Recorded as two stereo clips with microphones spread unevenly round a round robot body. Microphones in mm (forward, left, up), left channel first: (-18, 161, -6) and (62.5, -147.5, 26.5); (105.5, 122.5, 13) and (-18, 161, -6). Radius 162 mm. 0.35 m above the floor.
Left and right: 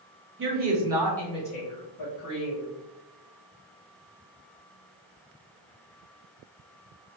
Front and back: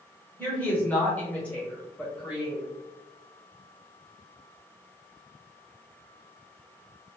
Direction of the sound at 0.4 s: 100° right.